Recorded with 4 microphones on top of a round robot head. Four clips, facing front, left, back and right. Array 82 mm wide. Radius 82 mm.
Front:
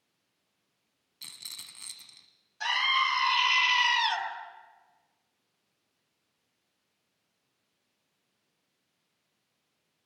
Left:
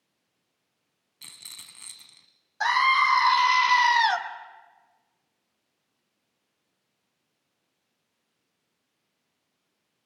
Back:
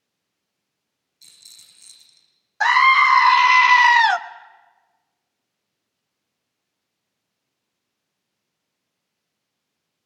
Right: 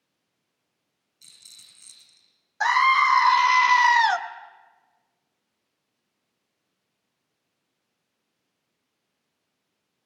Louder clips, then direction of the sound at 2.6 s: Right 2 dB, back 14 dB; 165° right.